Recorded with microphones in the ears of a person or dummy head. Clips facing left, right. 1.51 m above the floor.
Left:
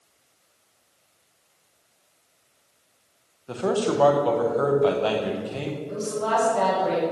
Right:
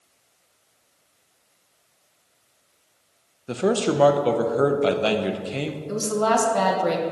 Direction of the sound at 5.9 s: 60° right (ahead or behind).